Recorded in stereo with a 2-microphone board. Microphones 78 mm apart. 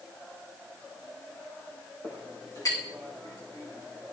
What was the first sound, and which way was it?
A clink, 55° left (ahead or behind).